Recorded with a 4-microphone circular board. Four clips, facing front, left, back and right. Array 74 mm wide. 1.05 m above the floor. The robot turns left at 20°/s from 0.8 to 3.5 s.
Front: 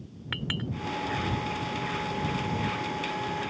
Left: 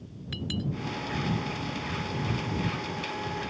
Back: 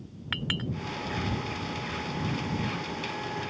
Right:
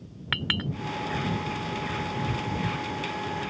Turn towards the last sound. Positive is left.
turn(degrees=-150)